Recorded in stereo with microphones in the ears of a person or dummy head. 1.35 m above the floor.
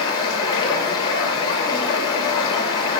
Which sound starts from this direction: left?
Running water, at 0.0 s.